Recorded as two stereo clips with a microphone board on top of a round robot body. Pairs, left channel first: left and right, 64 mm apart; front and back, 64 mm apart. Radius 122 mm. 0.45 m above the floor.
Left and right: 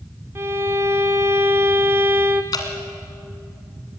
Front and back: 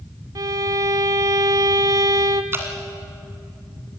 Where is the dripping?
120° left, 1.7 m.